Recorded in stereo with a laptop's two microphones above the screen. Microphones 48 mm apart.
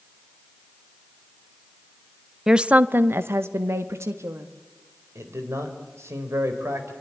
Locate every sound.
2.5 s a woman speaking: 10° right (ahead or behind), 0.6 m; by 4.5 s 75° right (ahead or behind), 1.8 m
5.2 s a man speaking: 80° right, 4 m